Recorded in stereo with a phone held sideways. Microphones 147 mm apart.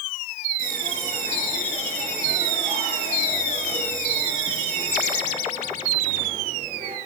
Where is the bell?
80° right, 6 m.